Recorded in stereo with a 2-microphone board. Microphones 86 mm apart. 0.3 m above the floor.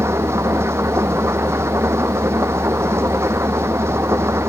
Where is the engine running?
30° right (ahead or behind).